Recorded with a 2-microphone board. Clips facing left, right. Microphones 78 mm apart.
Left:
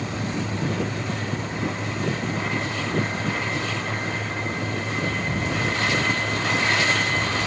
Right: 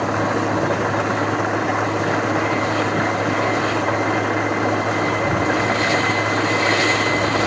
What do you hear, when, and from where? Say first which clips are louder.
0.0 s an engine running: right 9 dB; 75° right (ahead or behind)